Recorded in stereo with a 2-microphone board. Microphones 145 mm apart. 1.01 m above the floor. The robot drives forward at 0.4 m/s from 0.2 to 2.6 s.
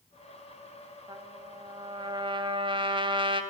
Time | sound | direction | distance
1.1 | a trumpet | 30° right (ahead or behind) | 3.5 m